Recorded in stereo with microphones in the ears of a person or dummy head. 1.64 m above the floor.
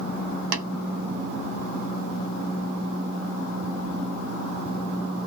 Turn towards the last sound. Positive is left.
turn(degrees=-65)  # may be behind; listen again after turning